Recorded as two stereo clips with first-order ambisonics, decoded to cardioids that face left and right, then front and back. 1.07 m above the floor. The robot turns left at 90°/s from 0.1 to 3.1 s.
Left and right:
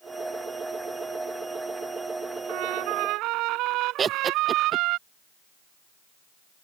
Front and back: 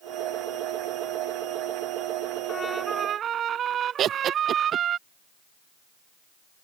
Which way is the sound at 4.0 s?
145° right.